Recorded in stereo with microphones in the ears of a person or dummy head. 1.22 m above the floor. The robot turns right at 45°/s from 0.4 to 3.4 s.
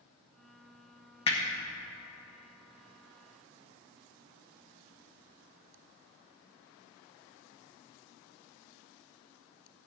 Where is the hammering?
25° left (ahead or behind), 1.0 m; by 1.4 s 20° left (ahead or behind), 1.0 m.